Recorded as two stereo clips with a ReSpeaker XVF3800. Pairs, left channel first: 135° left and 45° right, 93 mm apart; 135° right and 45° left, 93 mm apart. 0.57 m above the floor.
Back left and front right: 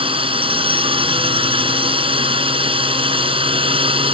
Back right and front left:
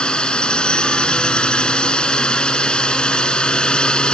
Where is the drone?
55° right.